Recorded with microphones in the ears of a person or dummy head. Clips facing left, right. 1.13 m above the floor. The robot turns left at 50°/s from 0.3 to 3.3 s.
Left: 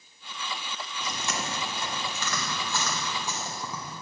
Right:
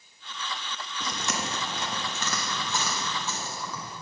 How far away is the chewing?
About 1.0 m.